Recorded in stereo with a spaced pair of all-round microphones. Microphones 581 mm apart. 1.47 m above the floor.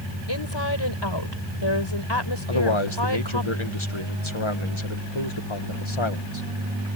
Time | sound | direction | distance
0.3 | a woman speaking | 45° left (ahead or behind) | ?
2.5 | a man speaking | 55° left (ahead or behind) | ?